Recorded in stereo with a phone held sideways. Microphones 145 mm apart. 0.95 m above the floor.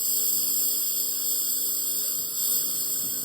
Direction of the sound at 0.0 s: 35° left (ahead or behind).